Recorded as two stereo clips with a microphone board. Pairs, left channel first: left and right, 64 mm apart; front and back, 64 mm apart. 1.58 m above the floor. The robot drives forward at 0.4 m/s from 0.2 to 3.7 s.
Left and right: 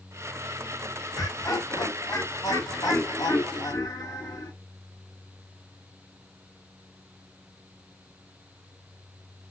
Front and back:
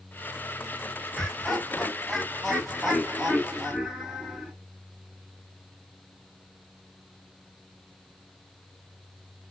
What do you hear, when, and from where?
1.1 s laughter: 80° left, 2.5 m; by 4.5 s 105° left, 2.5 m